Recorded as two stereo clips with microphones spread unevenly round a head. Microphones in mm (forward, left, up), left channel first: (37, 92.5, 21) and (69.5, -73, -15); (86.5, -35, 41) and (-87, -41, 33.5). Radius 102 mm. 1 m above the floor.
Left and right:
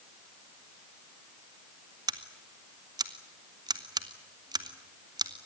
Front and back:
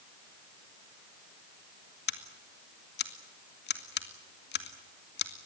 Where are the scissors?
15° right, 2 m.